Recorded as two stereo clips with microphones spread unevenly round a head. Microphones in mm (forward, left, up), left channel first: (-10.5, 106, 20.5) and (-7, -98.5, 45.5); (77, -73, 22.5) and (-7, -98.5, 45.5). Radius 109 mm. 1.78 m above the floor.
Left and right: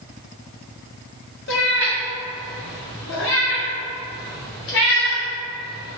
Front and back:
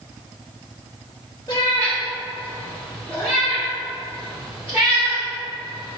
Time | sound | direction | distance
1.5 | a cat meowing | 90° left | 1.4 m